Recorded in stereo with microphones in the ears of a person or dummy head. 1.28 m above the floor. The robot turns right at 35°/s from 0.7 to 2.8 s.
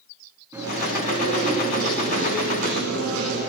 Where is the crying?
I don't hear crying.